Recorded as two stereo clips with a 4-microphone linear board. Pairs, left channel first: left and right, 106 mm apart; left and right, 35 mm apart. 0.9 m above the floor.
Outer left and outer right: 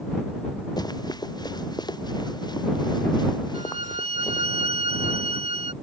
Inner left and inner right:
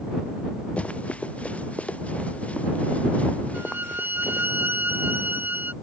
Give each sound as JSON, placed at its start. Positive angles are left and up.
{"t": 0.8, "sound": "running footsteps", "side_deg": 40}
{"t": 3.5, "sound": "a violin", "side_deg": -75}